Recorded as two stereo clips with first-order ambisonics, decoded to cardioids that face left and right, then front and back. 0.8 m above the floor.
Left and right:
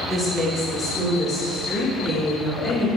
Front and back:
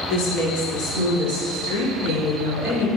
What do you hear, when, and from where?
0.1 s a woman speaking: 5° right, 1.9 m; by 2.9 s 5° left, 3.5 m